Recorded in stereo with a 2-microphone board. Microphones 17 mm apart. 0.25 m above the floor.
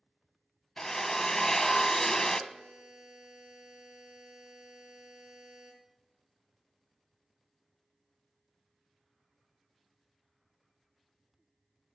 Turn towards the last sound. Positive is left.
turn(degrees=-65)  # may be behind; listen again after turning